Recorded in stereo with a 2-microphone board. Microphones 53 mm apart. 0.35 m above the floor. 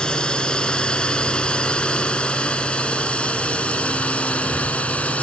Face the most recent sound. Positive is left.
turn(degrees=25)  # may be behind; listen again after turning